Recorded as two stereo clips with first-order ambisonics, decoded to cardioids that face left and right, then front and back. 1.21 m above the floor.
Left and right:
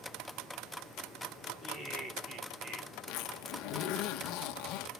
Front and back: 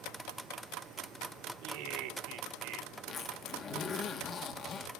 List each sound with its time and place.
1.6 s laughter: 165° right, 2.5 m; by 2.9 s 150° right, 2.5 m
3.1 s a zipper: 65° left, 1.7 m